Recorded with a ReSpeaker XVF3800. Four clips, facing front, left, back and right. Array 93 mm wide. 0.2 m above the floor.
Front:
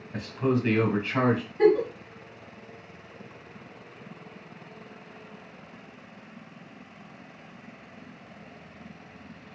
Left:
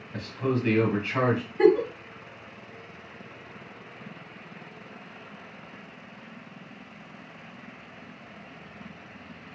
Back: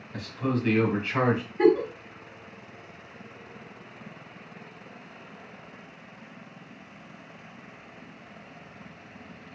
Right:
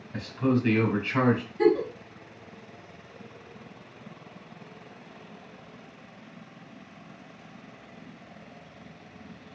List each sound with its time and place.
0.1 s a man speaking: 5° left, 1.2 m; by 1.4 s 175° left, 1.1 m
1.6 s a giggle: 115° left, 0.7 m